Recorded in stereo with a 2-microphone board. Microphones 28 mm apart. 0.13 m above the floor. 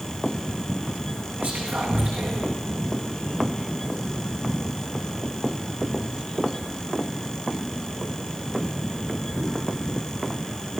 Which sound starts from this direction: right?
Whispering, at 1.4 s.